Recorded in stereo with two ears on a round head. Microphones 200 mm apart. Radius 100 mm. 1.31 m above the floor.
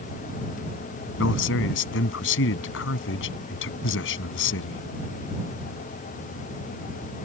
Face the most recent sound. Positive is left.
turn(degrees=60)  # may be behind; listen again after turning